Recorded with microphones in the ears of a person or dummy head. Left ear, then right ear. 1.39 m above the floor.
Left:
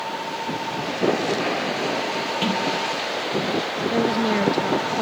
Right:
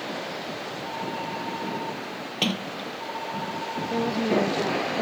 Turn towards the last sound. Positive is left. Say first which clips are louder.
# left 3 dB
turn(degrees=5)  # may be behind; listen again after turning